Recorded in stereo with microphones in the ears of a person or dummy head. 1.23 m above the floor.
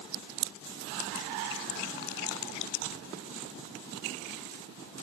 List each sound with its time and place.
Only background noise.